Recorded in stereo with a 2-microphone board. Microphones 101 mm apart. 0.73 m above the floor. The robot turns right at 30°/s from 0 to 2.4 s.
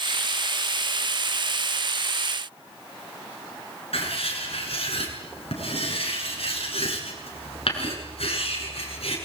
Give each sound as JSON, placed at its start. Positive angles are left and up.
{"t": 3.9, "sound": "writing", "side_deg": 80, "distance_m": 8.0}